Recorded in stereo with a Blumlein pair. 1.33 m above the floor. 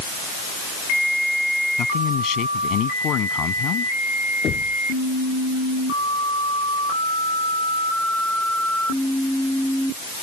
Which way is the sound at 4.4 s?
25° left.